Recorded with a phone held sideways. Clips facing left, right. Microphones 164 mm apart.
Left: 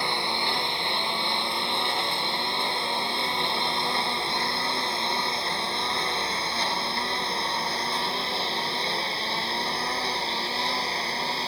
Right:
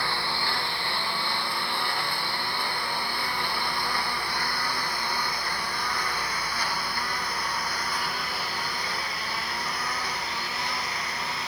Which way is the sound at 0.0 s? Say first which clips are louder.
Left 2 dB; 20° left (ahead or behind).